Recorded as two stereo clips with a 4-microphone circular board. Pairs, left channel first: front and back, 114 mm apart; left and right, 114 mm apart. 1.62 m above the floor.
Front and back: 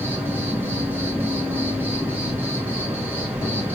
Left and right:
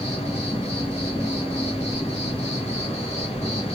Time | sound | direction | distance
0.0 | an insect | 110° left | 2.5 m